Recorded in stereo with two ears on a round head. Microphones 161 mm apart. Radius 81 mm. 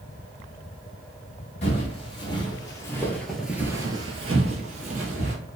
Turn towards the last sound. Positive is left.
turn(degrees=-45)  # may be behind; listen again after turning